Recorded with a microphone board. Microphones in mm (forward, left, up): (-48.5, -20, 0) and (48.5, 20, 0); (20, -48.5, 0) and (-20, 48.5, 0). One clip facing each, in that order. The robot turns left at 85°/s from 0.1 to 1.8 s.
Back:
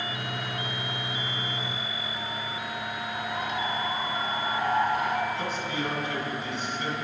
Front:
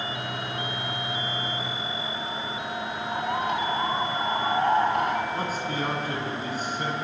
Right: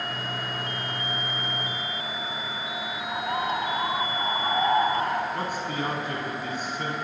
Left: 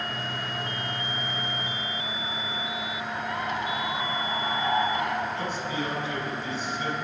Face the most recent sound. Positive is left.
turn(degrees=-25)